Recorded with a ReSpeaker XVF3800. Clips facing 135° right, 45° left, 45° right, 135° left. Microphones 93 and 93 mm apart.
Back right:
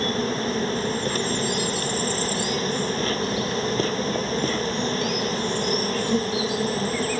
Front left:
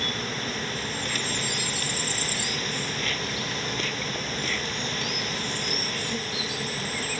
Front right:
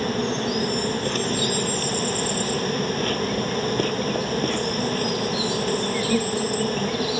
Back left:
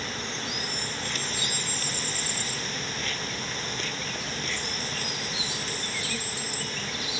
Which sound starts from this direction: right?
An insect, at 0.0 s.